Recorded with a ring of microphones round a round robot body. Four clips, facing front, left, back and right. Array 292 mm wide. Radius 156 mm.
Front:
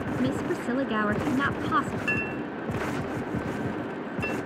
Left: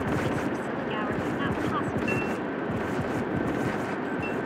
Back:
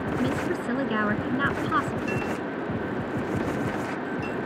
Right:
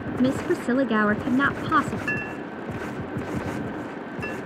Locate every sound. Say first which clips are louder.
0.2 s a woman speaking: right 5 dB, front 1 dB; 90° right
2.1 s a clink: left 3 dB, back 2 dB; 60° right